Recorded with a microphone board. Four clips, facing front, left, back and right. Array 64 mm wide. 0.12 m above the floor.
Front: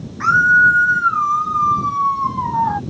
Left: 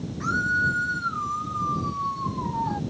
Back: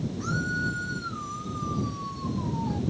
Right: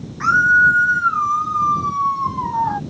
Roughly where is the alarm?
I don't hear an alarm.